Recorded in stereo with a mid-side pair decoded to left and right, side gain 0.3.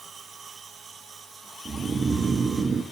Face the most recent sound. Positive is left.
turn(degrees=-55)